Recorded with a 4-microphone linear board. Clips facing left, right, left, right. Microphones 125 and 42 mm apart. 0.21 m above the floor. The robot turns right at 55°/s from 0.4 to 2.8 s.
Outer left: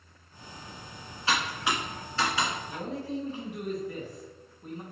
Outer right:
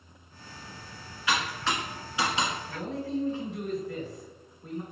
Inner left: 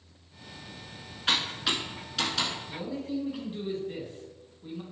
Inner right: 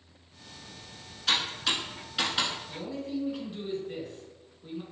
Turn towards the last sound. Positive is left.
turn(degrees=15)  # may be behind; listen again after turning